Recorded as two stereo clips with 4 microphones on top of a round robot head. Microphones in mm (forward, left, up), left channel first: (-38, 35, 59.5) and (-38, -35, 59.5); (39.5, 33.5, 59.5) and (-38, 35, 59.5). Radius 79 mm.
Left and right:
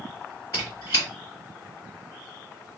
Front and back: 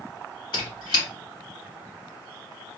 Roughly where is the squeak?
Ahead left.